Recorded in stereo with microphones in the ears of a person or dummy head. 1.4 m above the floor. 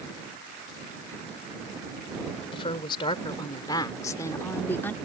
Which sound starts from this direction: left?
A woman speaking, at 2.5 s.